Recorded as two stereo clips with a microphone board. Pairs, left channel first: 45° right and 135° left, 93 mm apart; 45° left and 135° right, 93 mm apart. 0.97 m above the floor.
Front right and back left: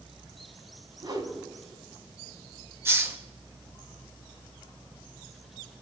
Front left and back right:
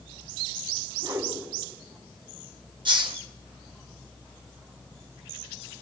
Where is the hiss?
165° right, 1.6 m.